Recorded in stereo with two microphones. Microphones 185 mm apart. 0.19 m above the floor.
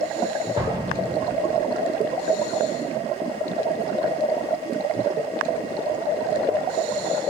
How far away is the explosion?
About 1.2 m.